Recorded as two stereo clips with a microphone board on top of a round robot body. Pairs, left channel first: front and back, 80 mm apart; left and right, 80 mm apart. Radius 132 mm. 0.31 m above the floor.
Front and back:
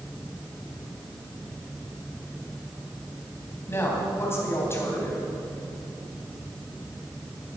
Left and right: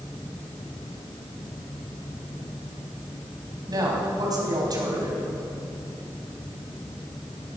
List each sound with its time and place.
3.7 s a woman speaking: 55° right, 3.5 m